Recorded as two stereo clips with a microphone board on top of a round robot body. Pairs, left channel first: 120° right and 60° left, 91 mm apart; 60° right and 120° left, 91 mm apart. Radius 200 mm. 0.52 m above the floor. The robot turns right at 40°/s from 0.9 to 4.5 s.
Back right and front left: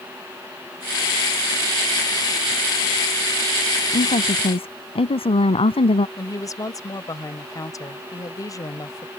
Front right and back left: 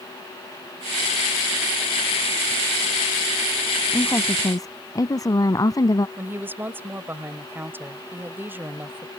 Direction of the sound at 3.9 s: 135° right.